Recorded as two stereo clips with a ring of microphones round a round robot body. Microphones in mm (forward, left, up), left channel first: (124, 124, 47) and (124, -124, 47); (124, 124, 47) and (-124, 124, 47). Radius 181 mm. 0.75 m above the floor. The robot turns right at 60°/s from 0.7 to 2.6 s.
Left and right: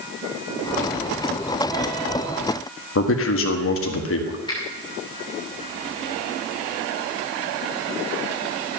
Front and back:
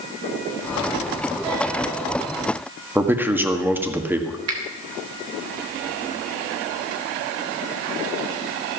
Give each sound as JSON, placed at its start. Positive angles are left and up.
{"t": 3.0, "sound": "a man speaking", "azimuth_deg": 100, "distance_m": 1.8}
{"t": 4.5, "sound": "a finger snap", "azimuth_deg": 165, "distance_m": 2.5}